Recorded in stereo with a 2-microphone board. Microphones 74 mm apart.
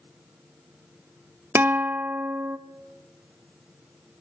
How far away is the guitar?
About 0.6 m.